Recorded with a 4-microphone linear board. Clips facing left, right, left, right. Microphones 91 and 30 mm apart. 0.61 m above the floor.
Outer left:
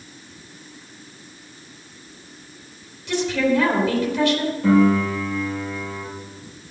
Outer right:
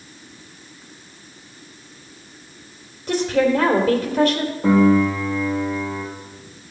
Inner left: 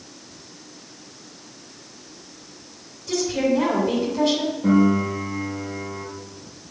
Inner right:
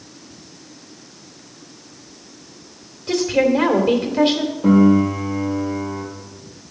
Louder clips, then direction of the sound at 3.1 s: Outer right 2 dB, inner right 5 dB; 45° right (ahead or behind).